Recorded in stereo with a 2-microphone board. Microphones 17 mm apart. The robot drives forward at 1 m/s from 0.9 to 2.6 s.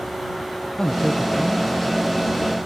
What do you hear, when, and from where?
0.8 s a man speaking: 30° left (ahead or behind), 0.5 m; by 2.6 s 5° left (ahead or behind), 1.9 m